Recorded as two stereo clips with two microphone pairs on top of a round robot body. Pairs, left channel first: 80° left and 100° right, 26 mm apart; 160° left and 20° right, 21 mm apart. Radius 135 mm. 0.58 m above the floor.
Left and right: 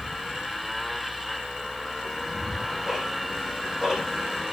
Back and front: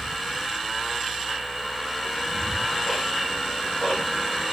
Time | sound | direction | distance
2.0 | ticking | 170° right | 9.5 m